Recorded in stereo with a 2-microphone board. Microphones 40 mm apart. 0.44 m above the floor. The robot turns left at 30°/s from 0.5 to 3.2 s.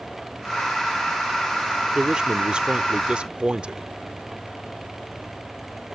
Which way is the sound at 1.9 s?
15° right (ahead or behind).